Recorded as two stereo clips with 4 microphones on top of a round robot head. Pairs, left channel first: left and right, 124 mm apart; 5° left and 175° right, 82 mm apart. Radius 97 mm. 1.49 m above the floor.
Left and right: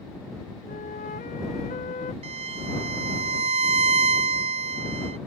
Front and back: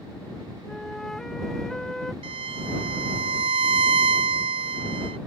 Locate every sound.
0.7 s a flute: 90° left
2.2 s a violin: 140° right